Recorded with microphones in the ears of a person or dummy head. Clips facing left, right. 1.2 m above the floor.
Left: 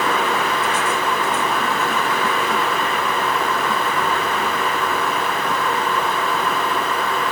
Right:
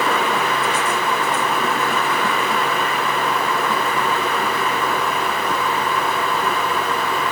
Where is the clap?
I don't hear a clap.